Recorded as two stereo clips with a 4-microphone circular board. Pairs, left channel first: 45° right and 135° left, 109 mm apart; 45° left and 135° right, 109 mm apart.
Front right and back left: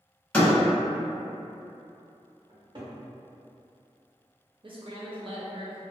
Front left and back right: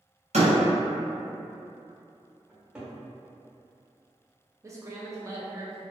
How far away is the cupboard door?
About 0.9 m.